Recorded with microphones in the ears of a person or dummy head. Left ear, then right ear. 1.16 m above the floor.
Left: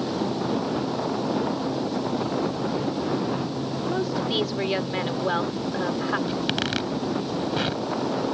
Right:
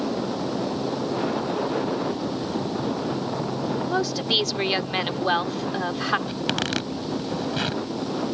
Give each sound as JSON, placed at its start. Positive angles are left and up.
{"t": 3.9, "sound": "a woman speaking", "side_deg": -40}
{"t": 6.3, "sound": "a zipper", "side_deg": -5}